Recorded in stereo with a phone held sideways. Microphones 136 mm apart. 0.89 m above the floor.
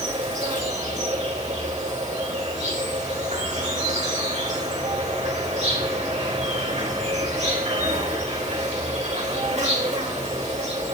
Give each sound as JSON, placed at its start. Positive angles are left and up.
{"t": 0.0, "sound": "an insect", "side_deg": -60, "distance_m": 4.0}